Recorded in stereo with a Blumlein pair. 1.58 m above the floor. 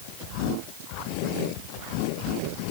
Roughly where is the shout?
I don't hear a shout.